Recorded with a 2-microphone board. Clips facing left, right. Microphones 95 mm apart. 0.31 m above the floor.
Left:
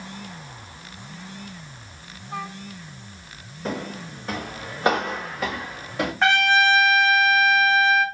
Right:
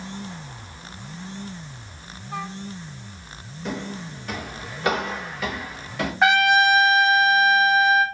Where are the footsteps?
40° left (ahead or behind), 1.1 m; by 6.1 s 35° left (ahead or behind), 2.5 m.